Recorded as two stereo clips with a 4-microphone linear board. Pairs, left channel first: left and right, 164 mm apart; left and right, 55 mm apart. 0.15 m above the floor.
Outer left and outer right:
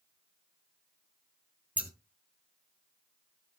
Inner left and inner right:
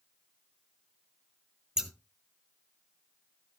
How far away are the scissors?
About 1.0 m.